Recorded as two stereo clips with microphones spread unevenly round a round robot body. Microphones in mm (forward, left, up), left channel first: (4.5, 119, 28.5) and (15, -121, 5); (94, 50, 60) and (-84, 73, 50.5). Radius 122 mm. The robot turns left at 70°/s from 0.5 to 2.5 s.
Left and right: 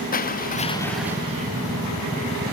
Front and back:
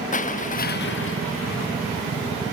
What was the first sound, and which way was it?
Crushing, 35° left.